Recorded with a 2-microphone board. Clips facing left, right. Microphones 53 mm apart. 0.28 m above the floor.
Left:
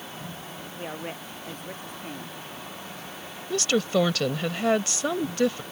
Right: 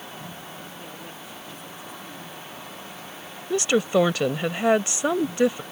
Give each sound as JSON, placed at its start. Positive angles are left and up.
{"t": 0.8, "sound": "a woman speaking", "side_deg": 50}
{"t": 3.5, "sound": "a woman speaking", "side_deg": -20}